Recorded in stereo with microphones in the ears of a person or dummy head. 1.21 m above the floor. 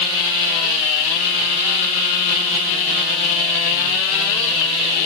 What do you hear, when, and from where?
Only background noise.